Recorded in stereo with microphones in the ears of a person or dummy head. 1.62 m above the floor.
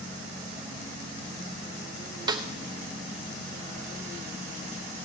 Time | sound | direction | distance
2.3 | a snare drum | 25° right (ahead or behind) | 0.7 m